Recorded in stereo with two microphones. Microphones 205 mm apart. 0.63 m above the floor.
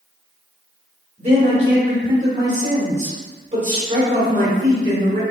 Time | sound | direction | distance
1.2 | a man speaking | 35° right (ahead or behind) | 1.5 m